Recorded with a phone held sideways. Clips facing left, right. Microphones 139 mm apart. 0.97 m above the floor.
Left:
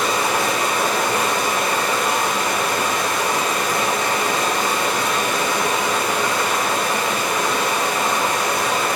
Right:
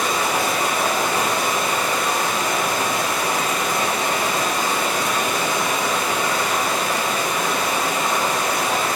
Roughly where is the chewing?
I don't hear chewing.